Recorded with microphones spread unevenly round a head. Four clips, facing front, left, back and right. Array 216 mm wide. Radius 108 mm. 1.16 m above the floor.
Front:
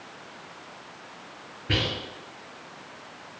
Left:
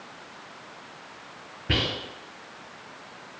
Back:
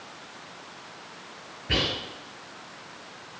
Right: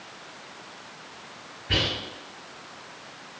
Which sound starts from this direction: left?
Whispering, at 1.7 s.